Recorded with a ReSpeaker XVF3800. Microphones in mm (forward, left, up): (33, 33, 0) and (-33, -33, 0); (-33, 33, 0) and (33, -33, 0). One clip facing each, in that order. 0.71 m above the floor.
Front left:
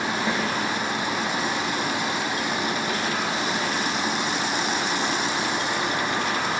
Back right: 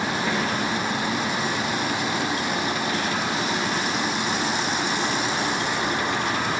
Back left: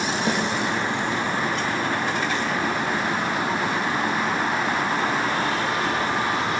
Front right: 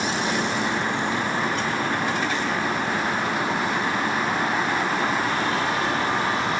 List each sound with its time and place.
0.3 s a snare drum: 120° left, 2 m